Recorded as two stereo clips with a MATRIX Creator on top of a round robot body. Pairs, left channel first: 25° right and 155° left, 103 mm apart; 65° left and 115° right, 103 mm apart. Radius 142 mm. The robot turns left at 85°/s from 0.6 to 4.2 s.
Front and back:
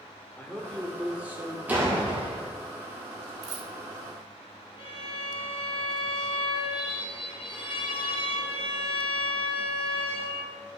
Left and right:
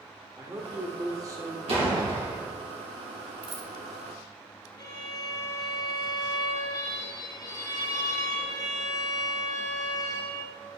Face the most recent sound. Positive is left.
turn(degrees=15)